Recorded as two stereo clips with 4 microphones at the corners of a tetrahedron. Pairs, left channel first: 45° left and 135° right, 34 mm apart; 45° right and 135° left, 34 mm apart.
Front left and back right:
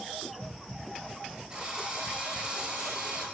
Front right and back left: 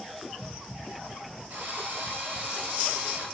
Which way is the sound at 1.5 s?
165° left.